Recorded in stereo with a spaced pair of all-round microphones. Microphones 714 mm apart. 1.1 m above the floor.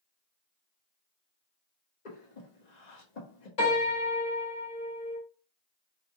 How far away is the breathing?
About 1.0 m.